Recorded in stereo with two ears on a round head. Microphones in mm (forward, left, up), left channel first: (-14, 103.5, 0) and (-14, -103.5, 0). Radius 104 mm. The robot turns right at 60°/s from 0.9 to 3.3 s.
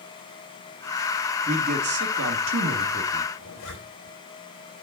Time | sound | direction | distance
1.5 | a man speaking | 145° right | 1.6 m
3.4 | a zipper | 70° left (ahead or behind) | 3.5 m